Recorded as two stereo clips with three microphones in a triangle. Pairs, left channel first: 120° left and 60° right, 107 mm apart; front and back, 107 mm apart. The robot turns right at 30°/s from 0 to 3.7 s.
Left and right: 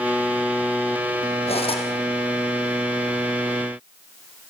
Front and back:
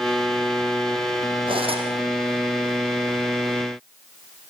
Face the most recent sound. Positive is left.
turn(degrees=-150)